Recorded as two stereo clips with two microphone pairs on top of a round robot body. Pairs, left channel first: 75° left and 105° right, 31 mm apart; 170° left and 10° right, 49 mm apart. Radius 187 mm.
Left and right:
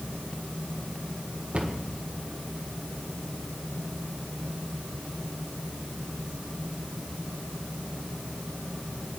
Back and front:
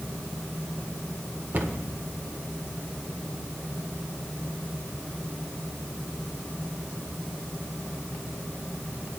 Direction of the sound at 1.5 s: 55° right.